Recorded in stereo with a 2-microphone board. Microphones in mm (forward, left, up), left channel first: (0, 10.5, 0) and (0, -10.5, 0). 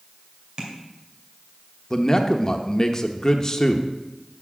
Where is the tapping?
50° right (ahead or behind), 2.5 m.